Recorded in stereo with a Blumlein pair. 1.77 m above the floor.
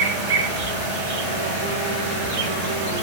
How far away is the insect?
About 0.9 m.